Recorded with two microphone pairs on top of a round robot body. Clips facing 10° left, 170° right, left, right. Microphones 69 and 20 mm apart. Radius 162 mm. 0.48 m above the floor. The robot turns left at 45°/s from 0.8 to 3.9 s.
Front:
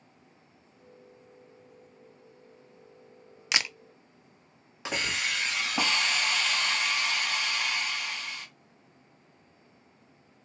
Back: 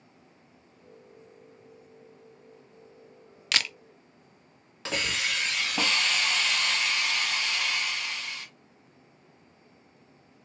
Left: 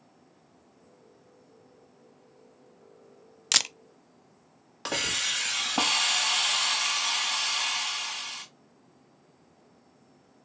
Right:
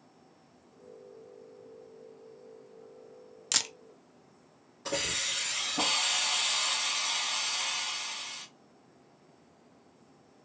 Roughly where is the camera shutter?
Left.